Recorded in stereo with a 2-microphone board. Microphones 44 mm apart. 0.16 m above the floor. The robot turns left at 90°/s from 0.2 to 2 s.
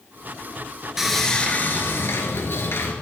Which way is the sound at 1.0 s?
170° right.